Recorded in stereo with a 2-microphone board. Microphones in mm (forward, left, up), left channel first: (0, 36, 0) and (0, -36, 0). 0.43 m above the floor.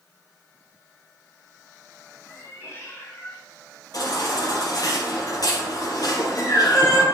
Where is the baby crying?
60° left (ahead or behind), 5.5 m.